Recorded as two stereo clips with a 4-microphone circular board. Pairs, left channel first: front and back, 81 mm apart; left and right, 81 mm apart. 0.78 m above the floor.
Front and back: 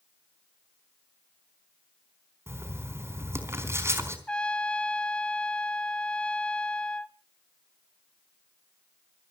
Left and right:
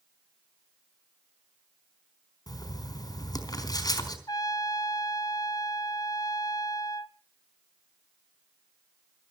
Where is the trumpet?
75° left, 0.8 m.